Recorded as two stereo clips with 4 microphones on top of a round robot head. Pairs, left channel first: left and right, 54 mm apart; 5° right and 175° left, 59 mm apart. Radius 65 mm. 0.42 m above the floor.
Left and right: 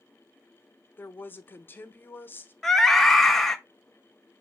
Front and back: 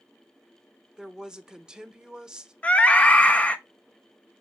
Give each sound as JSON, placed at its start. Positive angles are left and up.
{"t": 1.0, "sound": "a woman speaking", "azimuth_deg": 105, "distance_m": 0.9}
{"t": 2.6, "sound": "a scream", "azimuth_deg": 15, "distance_m": 0.7}